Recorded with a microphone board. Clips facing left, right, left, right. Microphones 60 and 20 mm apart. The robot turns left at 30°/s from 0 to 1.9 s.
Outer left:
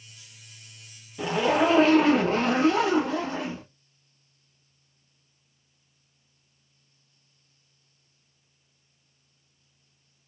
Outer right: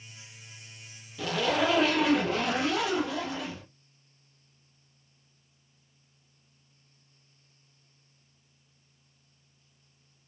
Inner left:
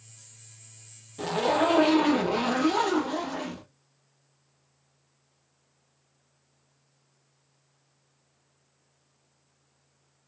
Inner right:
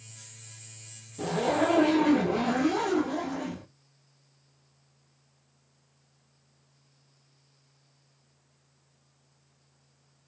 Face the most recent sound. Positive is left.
turn(degrees=40)  # may be behind; listen again after turning